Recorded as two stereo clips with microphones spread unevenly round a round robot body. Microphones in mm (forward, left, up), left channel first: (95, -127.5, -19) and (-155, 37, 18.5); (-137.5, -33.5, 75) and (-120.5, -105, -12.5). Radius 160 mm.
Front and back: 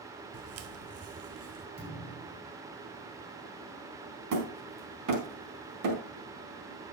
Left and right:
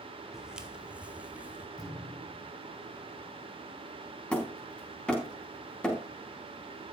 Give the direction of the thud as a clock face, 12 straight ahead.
9 o'clock.